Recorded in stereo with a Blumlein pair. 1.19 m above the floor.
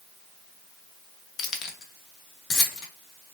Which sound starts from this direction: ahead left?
Keys jangling, at 1.4 s.